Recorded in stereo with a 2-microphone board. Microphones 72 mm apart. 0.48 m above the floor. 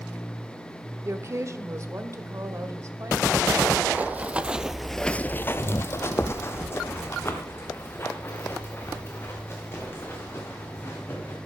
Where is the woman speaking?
40° right (ahead or behind), 0.9 m.